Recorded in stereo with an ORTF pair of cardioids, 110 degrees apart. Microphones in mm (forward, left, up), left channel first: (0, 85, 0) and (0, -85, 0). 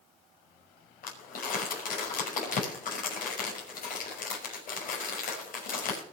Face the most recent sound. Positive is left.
turn(degrees=55)